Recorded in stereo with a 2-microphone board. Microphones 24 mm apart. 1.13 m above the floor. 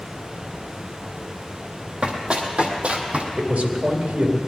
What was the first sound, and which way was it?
Running footsteps, 50° right (ahead or behind).